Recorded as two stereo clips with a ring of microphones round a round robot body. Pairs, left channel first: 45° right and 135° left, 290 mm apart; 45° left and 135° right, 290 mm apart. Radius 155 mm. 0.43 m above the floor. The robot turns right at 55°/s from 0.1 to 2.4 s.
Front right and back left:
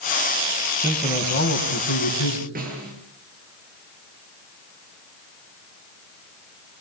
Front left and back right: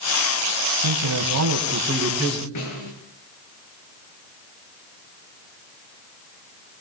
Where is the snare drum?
70° left, 9 m.